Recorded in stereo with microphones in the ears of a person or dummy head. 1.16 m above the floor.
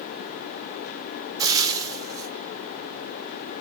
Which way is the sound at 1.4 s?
20° right (ahead or behind).